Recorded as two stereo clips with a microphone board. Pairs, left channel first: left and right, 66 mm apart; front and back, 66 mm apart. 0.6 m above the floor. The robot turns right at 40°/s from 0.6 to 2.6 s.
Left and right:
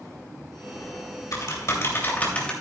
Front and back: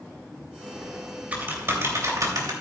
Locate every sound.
0.8 s typing on a keyboard: 95° left, 2.5 m; by 2.5 s 165° left, 2.5 m